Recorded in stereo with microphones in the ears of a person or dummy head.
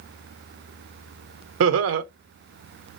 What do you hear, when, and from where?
1.6 s laughter: 75° right (ahead or behind), 0.8 m